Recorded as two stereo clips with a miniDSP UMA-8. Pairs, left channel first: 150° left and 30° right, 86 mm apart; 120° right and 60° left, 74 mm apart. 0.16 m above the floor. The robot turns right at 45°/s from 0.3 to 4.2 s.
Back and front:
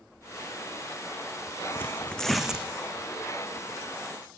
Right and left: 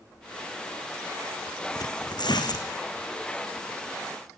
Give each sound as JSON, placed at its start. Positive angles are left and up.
{"t": 1.8, "sound": "tearing paper", "azimuth_deg": -145, "distance_m": 2.0}